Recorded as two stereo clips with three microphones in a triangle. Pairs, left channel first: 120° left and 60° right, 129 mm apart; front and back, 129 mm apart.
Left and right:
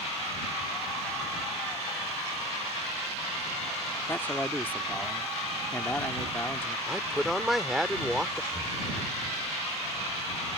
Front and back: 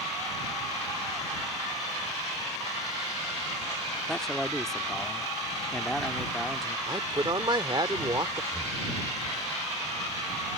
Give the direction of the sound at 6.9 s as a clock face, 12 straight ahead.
5 o'clock.